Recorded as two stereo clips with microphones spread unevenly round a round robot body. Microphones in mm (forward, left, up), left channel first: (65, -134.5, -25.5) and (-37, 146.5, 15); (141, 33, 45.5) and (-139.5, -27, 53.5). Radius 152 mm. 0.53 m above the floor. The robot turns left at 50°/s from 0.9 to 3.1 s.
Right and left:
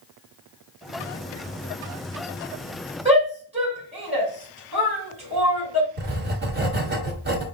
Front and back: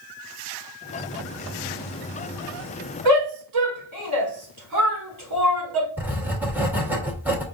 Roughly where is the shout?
Behind.